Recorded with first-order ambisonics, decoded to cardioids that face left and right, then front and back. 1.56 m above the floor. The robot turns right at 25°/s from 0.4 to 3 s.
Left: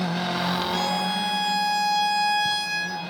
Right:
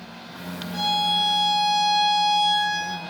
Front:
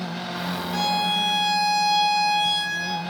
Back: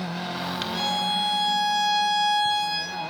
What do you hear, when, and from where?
0.7 s a violin: 40° left, 2.5 m; by 3.0 s 95° left, 2.5 m